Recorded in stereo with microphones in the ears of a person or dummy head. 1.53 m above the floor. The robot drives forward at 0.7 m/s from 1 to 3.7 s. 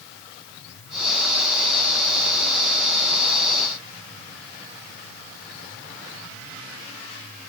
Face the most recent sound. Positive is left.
No sound to turn to.